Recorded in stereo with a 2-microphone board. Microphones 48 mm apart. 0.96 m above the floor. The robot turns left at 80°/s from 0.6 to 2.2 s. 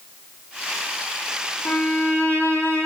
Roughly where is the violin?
Behind left.